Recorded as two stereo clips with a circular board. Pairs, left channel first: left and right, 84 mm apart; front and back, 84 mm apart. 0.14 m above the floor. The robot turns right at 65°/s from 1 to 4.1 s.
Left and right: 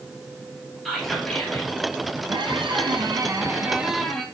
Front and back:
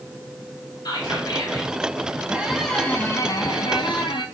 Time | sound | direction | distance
0.8 | whispering | straight ahead | 3 m
2.3 | a squeak | 110° right | 1.1 m